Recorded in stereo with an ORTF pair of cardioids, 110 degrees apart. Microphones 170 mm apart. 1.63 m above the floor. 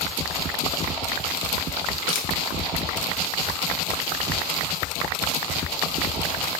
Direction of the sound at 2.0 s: 60° left.